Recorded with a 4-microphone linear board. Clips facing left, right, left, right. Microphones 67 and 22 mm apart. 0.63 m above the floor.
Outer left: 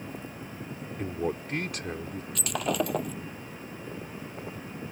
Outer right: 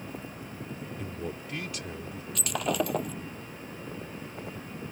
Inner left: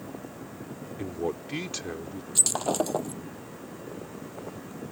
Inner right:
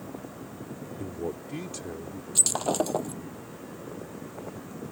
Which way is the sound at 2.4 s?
Centre (ahead or behind).